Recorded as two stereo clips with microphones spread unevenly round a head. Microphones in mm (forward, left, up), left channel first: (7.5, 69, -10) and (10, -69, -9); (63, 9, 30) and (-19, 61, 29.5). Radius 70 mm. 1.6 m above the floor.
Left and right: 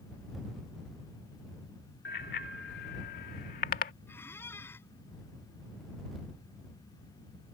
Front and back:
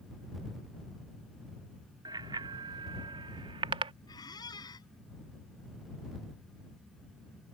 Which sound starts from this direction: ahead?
A squeak, at 4.1 s.